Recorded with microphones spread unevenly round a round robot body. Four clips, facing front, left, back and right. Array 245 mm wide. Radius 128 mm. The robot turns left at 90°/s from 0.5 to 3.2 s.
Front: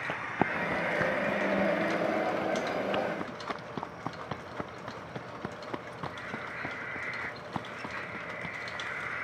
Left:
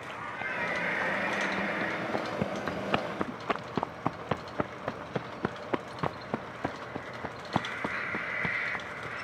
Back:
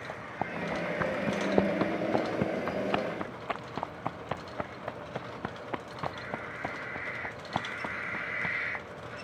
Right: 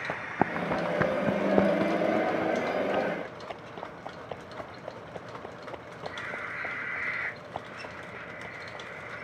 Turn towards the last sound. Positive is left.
turn(degrees=95)